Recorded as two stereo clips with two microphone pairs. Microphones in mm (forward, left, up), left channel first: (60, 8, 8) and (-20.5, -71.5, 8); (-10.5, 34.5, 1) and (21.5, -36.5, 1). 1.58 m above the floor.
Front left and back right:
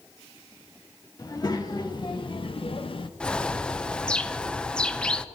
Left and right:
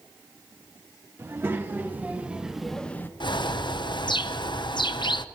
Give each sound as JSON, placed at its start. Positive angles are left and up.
{"t": 1.2, "sound": "a child speaking", "azimuth_deg": -10, "distance_m": 2.5}
{"t": 3.2, "sound": "a bird", "azimuth_deg": 125, "distance_m": 0.6}